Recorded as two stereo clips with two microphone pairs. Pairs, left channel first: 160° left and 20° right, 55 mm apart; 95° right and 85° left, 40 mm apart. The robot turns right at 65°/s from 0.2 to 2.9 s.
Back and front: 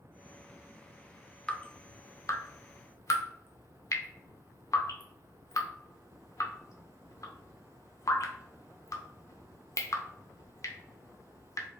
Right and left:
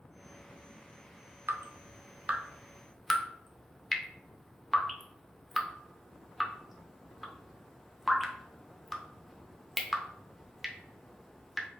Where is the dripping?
90° left, 0.6 m; by 11.7 s straight behind, 0.6 m.